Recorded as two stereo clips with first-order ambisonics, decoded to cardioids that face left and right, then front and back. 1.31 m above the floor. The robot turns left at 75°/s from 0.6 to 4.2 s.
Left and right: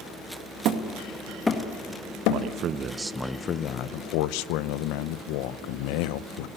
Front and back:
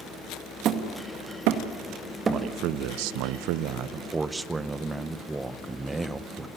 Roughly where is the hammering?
Behind right.